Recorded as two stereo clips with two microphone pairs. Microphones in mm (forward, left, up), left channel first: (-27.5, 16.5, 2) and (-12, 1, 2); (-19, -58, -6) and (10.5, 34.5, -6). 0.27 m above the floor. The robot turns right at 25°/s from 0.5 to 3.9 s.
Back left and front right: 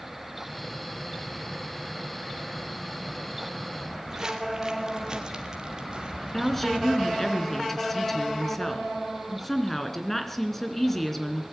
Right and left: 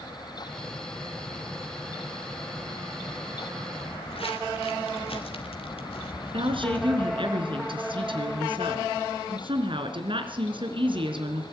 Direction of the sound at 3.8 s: 115° right.